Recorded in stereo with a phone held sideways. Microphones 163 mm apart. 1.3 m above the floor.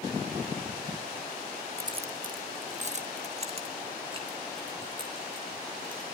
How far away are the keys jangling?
About 0.6 m.